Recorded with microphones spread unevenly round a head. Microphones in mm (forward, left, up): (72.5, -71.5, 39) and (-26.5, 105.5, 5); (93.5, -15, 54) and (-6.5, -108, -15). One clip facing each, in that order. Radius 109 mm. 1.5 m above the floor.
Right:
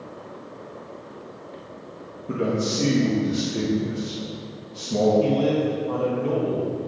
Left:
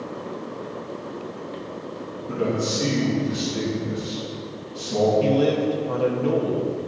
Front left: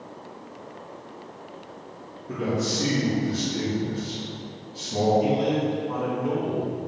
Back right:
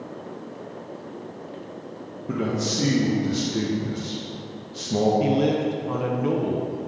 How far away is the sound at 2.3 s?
About 1.2 m.